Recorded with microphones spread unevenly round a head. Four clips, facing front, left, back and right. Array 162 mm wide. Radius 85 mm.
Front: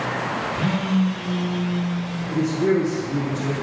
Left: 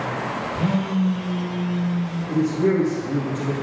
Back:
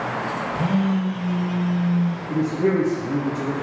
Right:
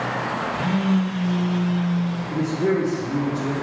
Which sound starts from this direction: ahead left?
A phone buzzing, at 0.6 s.